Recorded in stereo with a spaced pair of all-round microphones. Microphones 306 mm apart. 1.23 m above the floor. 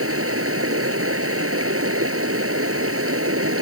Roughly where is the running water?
Right.